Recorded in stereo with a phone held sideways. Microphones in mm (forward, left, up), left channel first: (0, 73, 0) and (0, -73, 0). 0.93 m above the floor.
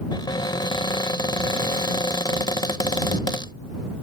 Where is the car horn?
No car horn in this recording.